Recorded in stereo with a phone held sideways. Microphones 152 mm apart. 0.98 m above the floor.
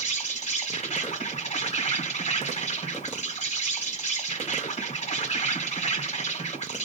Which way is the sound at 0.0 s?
50° left (ahead or behind).